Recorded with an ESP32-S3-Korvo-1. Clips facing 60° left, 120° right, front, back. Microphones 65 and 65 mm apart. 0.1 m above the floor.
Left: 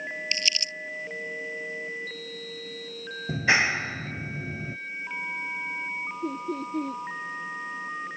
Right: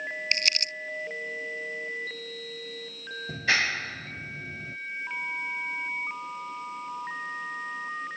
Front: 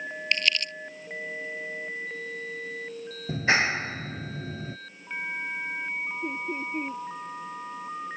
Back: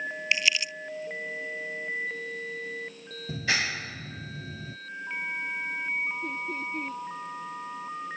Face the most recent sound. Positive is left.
turn(degrees=65)